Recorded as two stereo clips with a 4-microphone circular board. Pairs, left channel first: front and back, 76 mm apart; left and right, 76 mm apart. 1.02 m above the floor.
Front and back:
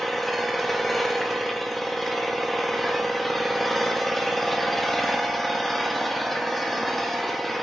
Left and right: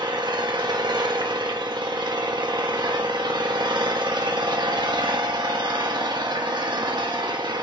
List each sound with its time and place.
0.0 s an engine running: 90° right, 1.5 m